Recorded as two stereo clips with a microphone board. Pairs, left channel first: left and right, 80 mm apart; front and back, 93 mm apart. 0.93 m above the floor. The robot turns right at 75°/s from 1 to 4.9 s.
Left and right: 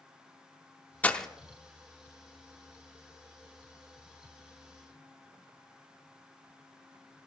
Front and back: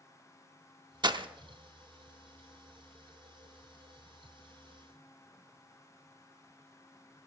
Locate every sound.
1.0 s breaking glass: 155° left, 0.7 m; by 1.3 s 175° left, 0.7 m